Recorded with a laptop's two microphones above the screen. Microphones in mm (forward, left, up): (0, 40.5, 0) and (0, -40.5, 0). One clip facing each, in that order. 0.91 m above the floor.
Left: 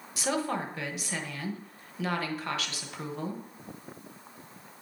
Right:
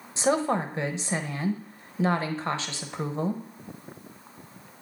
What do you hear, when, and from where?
0.2 s a woman speaking: 30° right (ahead or behind), 0.7 m